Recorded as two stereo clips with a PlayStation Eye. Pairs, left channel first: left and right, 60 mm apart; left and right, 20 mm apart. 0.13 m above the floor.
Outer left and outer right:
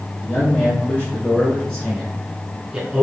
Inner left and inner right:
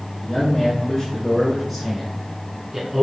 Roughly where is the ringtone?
No ringtone in this recording.